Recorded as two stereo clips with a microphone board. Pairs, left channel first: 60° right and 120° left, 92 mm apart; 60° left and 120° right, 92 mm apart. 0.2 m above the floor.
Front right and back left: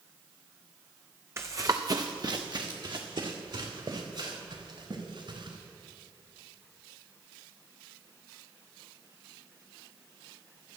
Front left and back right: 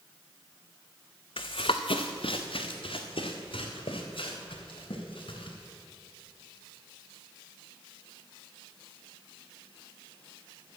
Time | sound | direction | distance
1.4 | running footsteps | 60° left | 0.6 m